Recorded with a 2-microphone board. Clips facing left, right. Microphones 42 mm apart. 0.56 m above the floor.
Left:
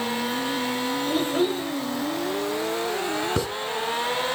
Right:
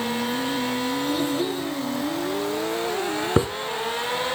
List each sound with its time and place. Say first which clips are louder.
1.1 s a child speaking: left 1 dB; 35° left (ahead or behind), 1.7 m
3.4 s a hiss: right 9 dB; 25° right (ahead or behind), 0.7 m